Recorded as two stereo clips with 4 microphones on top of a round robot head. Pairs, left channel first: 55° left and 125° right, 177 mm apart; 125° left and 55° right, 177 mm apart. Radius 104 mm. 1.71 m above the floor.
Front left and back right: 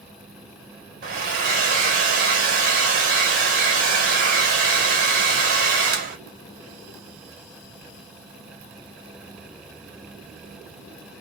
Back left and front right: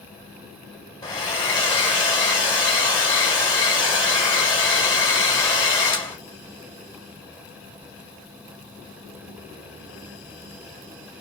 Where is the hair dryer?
170° right, 1.3 m.